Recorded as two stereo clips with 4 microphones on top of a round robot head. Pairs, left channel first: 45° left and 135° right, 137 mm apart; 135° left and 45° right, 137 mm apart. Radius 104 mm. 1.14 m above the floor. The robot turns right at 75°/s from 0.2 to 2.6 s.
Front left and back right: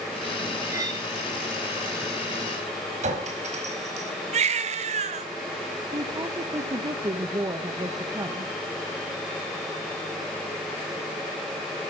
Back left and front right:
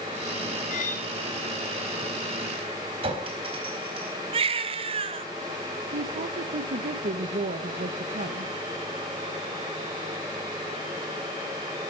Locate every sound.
0.7 s cutlery clinking: 155° left, 4.5 m; by 1.1 s straight behind, 4.5 m
3.0 s a clink: 95° right, 4 m
4.3 s a baby crying: 95° right, 1.4 m
5.9 s a woman speaking: 70° right, 1.2 m